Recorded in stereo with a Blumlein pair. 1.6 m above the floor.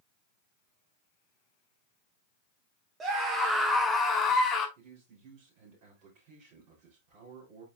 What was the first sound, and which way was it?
A scream, 20° right.